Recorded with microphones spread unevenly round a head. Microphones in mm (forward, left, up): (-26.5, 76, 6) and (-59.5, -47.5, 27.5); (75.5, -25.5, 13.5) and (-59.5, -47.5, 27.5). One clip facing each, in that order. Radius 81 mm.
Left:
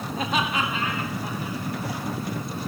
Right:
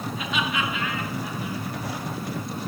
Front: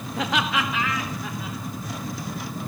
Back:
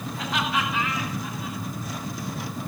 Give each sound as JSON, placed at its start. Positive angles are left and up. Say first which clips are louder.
{"t": 0.2, "sound": "laughter", "louder": "left 3 dB, front 3 dB", "azimuth_deg": 25, "distance_m": 1.3}